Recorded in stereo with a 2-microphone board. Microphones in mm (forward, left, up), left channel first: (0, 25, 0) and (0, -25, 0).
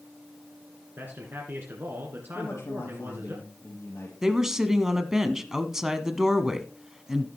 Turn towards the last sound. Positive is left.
turn(degrees=-10)  # may be behind; listen again after turning